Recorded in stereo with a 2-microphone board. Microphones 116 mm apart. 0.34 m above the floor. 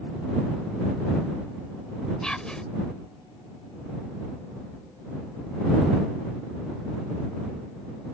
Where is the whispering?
5° left (ahead or behind).